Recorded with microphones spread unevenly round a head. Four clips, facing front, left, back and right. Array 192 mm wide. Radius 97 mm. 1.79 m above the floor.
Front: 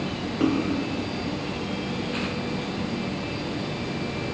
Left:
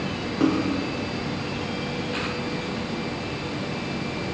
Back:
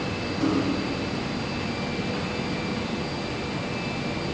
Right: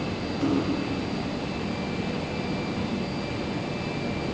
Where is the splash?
60° left, 1.9 m.